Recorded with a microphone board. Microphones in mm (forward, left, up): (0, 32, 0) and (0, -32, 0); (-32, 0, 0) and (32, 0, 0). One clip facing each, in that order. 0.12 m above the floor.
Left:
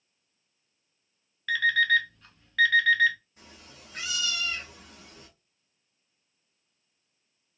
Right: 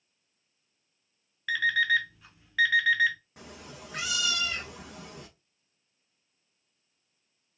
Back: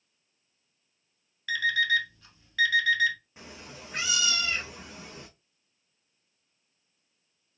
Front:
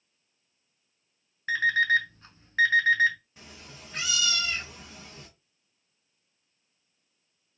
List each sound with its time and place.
1.5 s an alarm clock: 10° right, 0.6 m
3.4 s a cat meowing: 110° right, 0.8 m